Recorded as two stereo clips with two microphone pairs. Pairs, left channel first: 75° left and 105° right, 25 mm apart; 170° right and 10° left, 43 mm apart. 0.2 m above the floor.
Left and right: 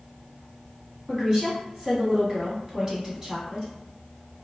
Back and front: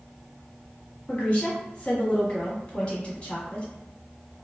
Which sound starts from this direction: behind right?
A woman speaking, at 1.1 s.